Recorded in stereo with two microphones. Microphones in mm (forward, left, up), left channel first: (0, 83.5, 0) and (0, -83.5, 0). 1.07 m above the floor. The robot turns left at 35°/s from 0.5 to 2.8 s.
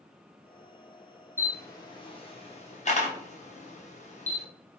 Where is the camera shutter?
15° left (ahead or behind), 0.6 m; by 4.5 s 45° left (ahead or behind), 0.6 m.